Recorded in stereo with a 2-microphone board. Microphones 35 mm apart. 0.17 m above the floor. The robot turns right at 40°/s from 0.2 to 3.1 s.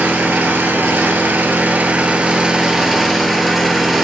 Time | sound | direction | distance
0.0 | an engine running | 120° right | 1.8 m